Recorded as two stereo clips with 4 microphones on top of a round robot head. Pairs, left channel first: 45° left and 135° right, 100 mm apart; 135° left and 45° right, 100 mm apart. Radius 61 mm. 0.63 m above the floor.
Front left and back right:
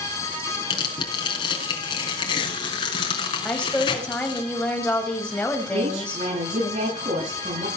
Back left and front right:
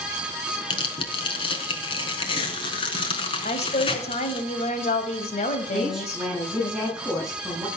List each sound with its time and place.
0.7 s tearing paper: 95° left, 4 m
3.5 s a woman speaking: 130° left, 4.5 m
5.7 s a woman speaking: 130° right, 9 m